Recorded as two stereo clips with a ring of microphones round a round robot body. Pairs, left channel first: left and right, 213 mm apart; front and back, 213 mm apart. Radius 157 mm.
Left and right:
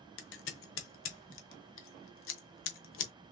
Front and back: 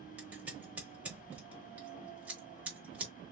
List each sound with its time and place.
0.2 s scissors: 95° left, 0.9 m